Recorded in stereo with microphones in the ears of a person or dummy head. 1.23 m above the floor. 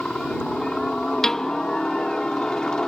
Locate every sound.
0.0 s a helicopter: centre (ahead or behind)
1.2 s a piano: centre (ahead or behind)